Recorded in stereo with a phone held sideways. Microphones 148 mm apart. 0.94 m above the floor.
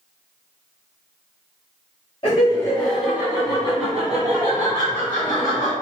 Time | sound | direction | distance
2.2 | laughter | 35° left (ahead or behind) | 0.7 m